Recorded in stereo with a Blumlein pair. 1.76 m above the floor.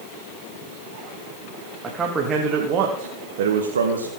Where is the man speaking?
15° right, 3 m; by 4.1 s 80° right, 2 m.